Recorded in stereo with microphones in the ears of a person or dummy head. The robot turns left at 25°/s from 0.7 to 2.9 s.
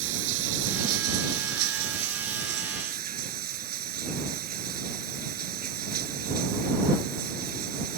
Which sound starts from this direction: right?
Running water, at 0.0 s.